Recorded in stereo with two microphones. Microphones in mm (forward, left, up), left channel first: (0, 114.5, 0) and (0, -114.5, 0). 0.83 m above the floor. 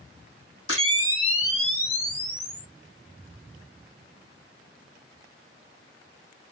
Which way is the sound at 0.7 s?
65° left (ahead or behind).